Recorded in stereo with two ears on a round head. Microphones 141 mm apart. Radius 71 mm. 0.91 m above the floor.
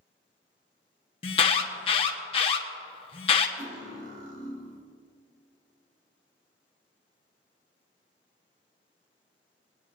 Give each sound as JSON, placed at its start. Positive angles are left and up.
{"t": 1.2, "sound": "an alarm", "side_deg": 35, "distance_m": 1.2}
{"t": 3.6, "sound": "cutlery clinking", "side_deg": -90, "distance_m": 1.9}